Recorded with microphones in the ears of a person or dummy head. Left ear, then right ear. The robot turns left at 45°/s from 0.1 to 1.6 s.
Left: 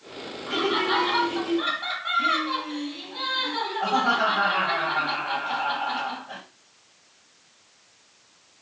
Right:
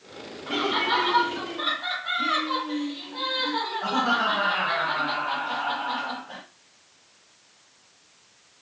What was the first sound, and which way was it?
Laughter, 155° right.